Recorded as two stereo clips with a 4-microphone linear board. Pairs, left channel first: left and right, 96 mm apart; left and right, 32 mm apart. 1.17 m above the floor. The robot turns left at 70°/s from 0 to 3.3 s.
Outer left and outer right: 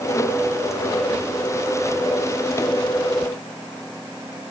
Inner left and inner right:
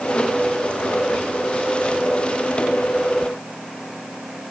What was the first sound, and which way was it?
Only background noise.